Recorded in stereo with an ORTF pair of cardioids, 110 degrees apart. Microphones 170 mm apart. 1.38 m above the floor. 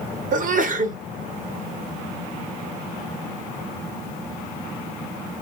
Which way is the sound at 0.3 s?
50° right.